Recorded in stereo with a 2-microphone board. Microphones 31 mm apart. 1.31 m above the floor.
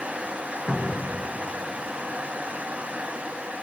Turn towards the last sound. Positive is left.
turn(degrees=15)  # may be behind; listen again after turning